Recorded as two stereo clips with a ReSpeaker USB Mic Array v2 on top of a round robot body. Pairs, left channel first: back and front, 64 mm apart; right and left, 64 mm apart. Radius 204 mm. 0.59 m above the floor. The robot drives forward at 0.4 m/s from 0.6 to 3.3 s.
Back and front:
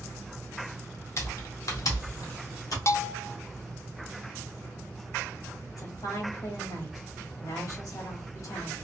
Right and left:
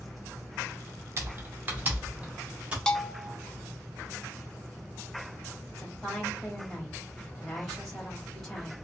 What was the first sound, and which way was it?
Typing on a keyboard, 140° left.